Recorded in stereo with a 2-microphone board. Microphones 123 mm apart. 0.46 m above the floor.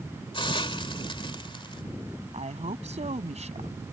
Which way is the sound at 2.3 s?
65° right (ahead or behind).